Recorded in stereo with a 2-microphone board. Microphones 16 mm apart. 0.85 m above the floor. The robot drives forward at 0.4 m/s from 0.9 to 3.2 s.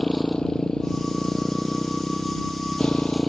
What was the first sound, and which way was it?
A motorcycle, 50° left (ahead or behind).